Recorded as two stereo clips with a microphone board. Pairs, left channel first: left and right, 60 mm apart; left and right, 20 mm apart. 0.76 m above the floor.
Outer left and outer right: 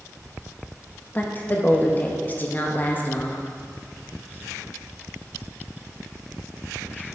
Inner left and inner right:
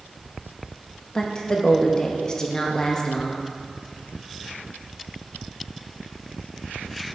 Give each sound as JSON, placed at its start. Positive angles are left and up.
{"t": 1.1, "sound": "a woman speaking", "side_deg": 30, "distance_m": 0.7}